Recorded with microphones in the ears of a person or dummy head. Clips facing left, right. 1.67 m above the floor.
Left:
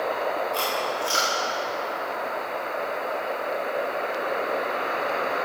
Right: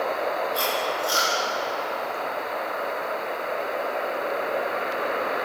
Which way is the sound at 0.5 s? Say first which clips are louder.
Right 1 dB; 40° left (ahead or behind).